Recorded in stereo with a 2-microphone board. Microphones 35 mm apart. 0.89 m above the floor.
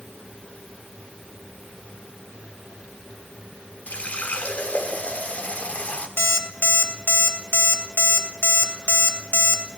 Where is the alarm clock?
85° left, 1.3 m.